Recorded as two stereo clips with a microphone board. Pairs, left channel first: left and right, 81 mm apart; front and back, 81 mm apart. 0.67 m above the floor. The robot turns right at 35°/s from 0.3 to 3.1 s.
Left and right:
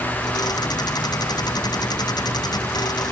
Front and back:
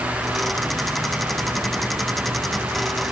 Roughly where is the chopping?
No chopping in this recording.